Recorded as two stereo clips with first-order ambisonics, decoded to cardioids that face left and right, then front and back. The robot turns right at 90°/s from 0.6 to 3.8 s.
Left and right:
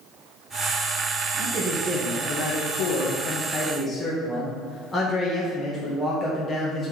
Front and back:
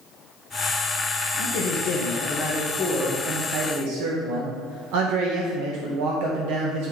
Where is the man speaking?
50° right, 1.3 m; by 6.9 s 170° left, 1.3 m.